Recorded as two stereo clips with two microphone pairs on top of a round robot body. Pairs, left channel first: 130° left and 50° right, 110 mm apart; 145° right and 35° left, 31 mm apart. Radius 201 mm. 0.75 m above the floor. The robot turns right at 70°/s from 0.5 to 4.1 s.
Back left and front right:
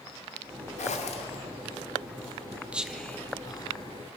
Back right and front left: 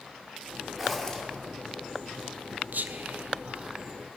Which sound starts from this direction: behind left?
A zipper, at 0.8 s.